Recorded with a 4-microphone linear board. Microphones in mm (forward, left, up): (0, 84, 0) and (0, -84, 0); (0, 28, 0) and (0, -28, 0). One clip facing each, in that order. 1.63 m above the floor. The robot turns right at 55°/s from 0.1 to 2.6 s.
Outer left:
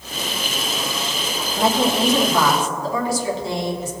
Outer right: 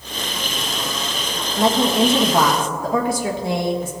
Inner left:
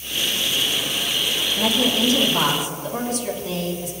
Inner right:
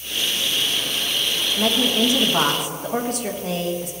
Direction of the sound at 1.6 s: 175° left.